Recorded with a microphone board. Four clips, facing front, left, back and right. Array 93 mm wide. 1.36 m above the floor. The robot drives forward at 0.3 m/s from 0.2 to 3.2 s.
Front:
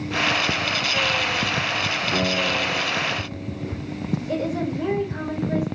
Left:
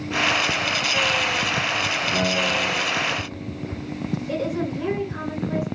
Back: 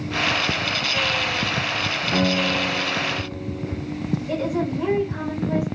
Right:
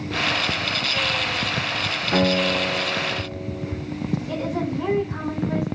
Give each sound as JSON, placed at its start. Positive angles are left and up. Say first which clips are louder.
{"t": 2.1, "sound": "a guitar", "louder": "right 5 dB, back 3 dB", "azimuth_deg": -110, "distance_m": 0.8}
{"t": 4.3, "sound": "a woman speaking", "louder": "left 3 dB, back 1 dB", "azimuth_deg": -140, "distance_m": 2.0}